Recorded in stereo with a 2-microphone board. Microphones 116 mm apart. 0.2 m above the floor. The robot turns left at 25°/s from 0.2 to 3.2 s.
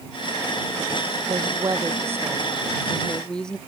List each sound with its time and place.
1.3 s a woman speaking: 140° right; by 3.6 s 175° left